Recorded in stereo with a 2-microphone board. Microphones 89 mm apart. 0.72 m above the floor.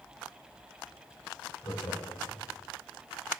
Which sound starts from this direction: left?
Laughter, at 1.6 s.